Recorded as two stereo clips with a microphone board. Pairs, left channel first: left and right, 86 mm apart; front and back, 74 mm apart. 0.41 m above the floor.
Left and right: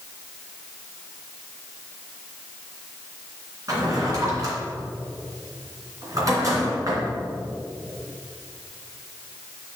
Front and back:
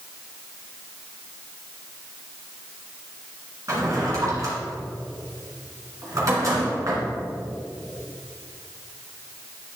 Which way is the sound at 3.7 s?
135° right.